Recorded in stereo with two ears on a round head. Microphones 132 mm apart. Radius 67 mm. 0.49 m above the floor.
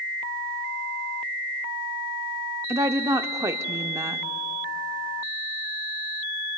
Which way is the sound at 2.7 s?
20° right (ahead or behind).